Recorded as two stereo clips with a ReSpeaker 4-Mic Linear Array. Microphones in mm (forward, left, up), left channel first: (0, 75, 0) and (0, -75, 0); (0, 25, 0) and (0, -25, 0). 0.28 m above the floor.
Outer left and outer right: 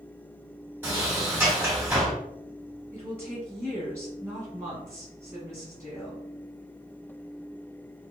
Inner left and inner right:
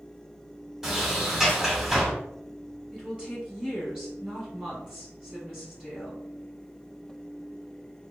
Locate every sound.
0.8 s a sliding door: 15° right (ahead or behind), 1.0 m
2.9 s a woman speaking: 15° right (ahead or behind), 1.5 m